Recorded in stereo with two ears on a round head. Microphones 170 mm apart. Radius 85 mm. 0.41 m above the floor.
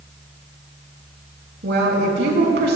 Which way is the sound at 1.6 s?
65° right (ahead or behind).